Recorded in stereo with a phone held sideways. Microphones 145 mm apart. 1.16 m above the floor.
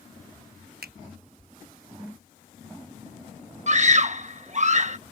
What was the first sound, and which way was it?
A finger snap, 80° right.